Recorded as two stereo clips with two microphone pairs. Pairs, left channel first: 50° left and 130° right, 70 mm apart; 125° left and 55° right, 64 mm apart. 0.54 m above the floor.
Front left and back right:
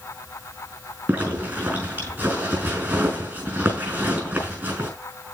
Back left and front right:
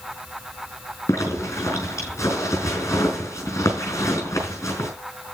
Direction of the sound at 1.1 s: 170° left.